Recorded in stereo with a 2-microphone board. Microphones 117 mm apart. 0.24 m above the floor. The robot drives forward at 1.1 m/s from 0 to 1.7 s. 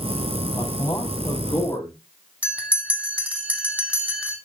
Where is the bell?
15° right (ahead or behind), 2.5 m.